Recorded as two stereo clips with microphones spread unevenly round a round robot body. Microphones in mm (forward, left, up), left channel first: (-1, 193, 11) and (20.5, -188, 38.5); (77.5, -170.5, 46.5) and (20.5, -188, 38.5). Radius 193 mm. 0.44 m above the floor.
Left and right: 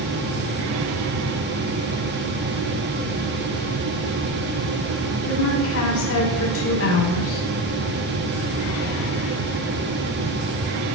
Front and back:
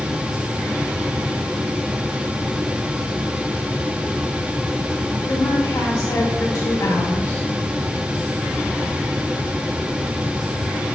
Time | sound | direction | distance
5.3 | a woman speaking | 40° left | 3.5 m